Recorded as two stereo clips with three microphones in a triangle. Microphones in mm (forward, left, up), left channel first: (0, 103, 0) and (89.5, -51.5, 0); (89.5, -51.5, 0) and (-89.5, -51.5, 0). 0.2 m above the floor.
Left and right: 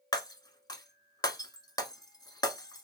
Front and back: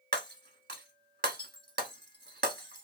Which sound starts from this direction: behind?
Breaking glass, at 0.1 s.